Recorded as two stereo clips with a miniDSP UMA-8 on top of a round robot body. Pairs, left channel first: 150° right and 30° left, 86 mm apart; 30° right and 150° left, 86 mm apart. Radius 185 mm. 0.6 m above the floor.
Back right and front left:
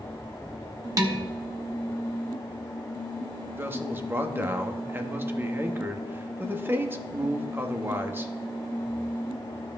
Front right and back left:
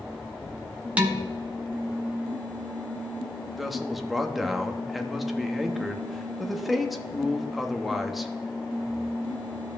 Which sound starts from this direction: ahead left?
A man speaking, at 3.6 s.